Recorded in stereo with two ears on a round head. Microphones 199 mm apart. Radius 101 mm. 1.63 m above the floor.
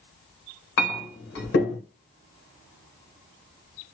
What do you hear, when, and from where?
0.8 s a clink: 50° left (ahead or behind), 1.0 m